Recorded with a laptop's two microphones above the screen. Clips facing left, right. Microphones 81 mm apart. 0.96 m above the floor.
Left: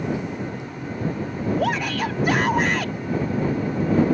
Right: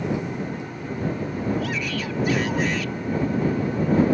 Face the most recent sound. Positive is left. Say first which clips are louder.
# left 5 dB
turn(degrees=65)  # may be behind; listen again after turning